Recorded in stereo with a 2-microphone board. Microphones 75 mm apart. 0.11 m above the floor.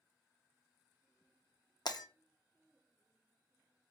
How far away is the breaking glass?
About 0.6 m.